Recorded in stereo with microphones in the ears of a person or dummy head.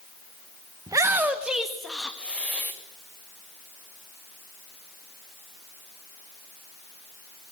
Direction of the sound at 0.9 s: 20° right (ahead or behind).